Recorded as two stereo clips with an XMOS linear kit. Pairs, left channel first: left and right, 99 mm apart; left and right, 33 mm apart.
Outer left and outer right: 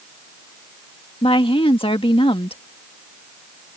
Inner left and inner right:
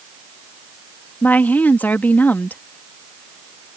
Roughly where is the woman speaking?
Left.